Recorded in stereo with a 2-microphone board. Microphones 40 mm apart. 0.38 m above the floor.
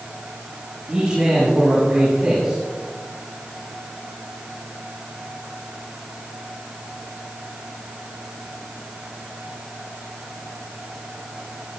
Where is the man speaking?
15° right (ahead or behind), 6.5 m.